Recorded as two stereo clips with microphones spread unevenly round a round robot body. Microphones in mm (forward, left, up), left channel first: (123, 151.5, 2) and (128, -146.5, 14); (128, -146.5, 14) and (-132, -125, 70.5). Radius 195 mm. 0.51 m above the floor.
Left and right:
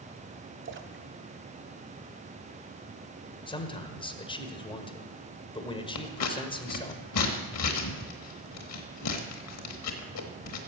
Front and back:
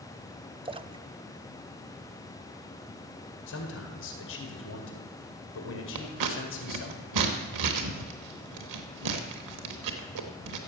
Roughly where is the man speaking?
Ahead.